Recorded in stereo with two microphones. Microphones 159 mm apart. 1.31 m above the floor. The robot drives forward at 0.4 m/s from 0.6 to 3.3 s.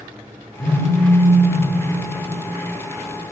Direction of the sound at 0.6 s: 50° left (ahead or behind).